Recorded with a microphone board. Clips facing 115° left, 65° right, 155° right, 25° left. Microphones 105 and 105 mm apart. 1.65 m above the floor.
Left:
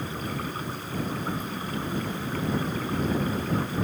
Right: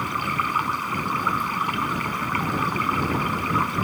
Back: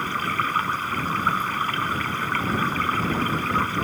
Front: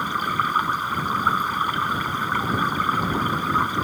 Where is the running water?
50° right.